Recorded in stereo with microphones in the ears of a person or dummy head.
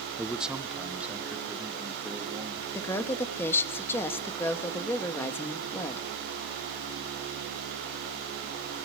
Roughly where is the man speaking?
Centre.